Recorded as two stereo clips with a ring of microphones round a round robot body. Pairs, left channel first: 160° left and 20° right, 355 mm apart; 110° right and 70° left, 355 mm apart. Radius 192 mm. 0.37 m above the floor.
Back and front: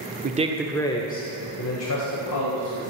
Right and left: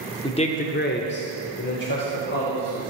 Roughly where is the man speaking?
Ahead right.